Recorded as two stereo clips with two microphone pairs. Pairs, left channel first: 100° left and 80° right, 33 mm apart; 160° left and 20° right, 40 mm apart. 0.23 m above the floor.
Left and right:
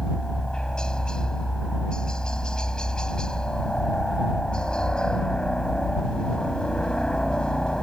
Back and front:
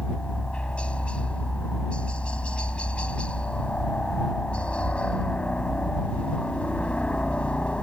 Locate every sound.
0.0 s a helicopter: 140° left